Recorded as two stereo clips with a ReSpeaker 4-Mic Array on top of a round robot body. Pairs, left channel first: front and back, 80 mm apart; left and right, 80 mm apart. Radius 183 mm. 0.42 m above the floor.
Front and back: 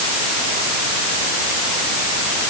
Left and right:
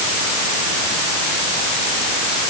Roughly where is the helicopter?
I don't hear a helicopter.